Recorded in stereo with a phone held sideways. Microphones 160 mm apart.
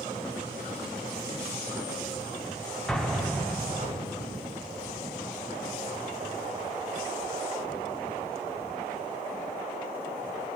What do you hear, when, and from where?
2.9 s an explosion: 5° left (ahead or behind), 2.5 m